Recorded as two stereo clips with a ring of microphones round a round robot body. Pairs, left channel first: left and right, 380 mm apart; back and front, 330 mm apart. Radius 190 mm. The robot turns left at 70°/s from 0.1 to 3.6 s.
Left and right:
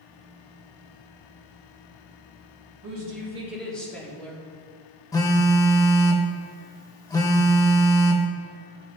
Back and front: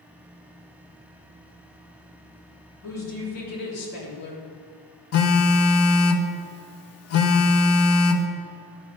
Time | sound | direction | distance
2.8 | a woman speaking | 130° right | 1.6 m
5.1 | a phone buzzing | 170° left | 0.5 m